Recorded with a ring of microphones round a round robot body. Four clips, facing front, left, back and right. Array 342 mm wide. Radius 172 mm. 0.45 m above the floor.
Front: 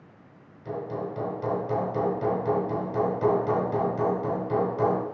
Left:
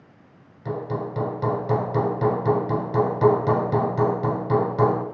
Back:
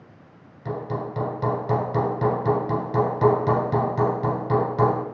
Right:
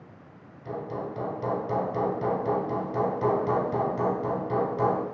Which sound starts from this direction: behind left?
Hammering, at 0.7 s.